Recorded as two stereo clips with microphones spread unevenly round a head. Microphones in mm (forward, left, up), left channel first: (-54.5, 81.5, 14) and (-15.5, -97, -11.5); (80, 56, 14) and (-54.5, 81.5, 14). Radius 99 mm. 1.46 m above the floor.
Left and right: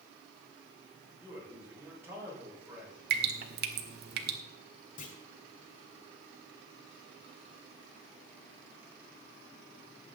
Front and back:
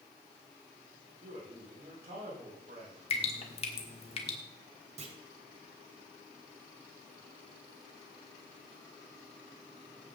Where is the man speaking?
155° right, 6.5 m.